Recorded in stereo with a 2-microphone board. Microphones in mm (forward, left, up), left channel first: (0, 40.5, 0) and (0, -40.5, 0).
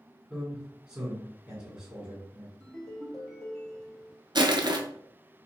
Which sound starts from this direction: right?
Crushing, at 4.3 s.